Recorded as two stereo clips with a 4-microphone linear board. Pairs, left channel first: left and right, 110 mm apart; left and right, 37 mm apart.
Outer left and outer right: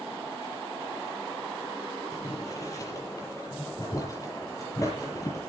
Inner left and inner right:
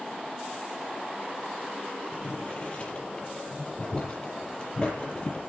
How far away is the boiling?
About 7 m.